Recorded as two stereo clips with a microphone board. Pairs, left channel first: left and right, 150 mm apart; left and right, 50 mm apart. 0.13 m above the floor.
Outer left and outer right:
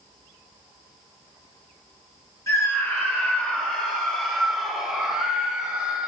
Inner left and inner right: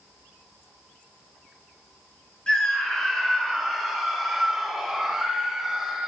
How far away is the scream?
About 2.0 m.